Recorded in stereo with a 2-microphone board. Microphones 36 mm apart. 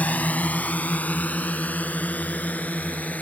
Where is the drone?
50° left (ahead or behind).